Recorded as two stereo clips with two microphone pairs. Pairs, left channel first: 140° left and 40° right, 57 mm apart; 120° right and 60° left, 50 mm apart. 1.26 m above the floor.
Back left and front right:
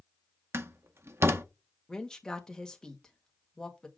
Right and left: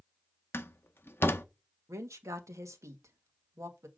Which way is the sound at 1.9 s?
60° left.